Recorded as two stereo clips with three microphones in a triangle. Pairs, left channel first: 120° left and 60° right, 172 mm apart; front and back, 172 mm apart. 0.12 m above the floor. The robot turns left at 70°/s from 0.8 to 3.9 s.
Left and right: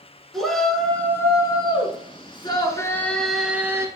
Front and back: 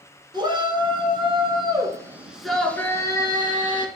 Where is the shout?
155° right, 1.8 m; by 3.9 s 5° right, 1.8 m.